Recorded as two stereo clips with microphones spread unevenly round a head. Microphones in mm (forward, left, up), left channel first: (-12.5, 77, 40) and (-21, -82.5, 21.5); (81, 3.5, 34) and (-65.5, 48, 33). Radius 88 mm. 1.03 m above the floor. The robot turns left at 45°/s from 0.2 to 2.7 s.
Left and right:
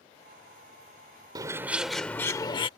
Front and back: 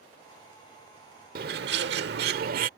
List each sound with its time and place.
1.4 s a bird: 160° right; by 2.7 s 140° left